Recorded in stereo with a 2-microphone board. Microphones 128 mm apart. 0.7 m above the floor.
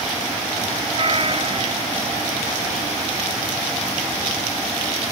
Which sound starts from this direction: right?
A cat meowing, at 0.9 s.